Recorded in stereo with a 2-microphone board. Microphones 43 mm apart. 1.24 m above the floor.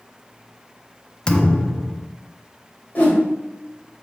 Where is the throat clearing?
I don't hear throat clearing.